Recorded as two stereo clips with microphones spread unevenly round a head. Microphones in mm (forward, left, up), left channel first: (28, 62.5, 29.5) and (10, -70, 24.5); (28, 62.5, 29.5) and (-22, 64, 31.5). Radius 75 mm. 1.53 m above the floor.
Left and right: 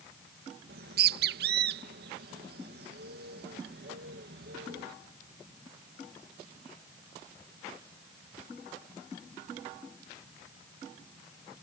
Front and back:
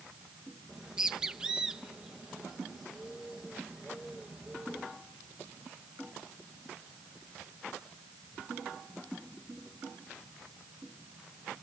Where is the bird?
100° right.